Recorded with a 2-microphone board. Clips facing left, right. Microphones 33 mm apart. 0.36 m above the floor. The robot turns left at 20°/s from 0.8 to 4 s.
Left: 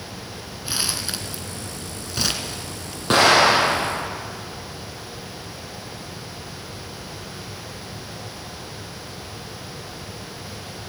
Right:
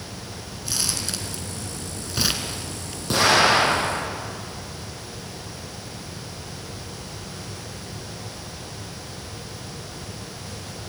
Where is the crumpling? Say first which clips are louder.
Left 2 dB; 25° left (ahead or behind), 1.9 m; by 3.0 s 15° right (ahead or behind), 1.9 m.